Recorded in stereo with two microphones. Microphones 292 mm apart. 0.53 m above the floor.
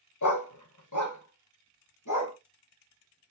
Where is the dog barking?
75° left (ahead or behind), 0.9 m; by 2.4 s 85° left, 2 m.